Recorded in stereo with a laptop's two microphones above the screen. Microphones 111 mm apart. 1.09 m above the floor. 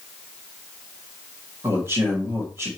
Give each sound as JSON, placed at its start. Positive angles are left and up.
{"t": 1.6, "sound": "a man speaking", "side_deg": -25, "distance_m": 2.0}